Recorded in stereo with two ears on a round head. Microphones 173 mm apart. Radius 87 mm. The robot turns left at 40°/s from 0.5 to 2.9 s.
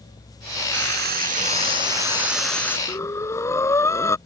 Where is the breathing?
15° left (ahead or behind).